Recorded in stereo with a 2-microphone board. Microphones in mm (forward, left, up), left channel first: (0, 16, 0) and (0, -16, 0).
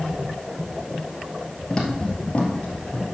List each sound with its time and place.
1.7 s footsteps: 20° left (ahead or behind), 2 m; by 3.0 s 45° left (ahead or behind), 2 m